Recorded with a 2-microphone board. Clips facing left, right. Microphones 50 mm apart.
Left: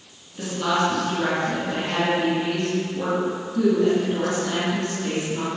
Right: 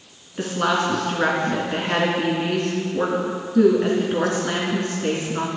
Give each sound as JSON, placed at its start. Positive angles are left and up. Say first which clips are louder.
{"t": 0.4, "sound": "a woman speaking", "louder": "right 1 dB", "side_deg": -45, "distance_m": 2.5}